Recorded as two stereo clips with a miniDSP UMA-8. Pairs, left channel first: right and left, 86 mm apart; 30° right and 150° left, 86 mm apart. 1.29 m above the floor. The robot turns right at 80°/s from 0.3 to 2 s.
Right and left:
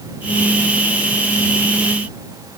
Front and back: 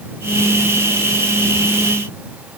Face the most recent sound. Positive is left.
No sound to turn to.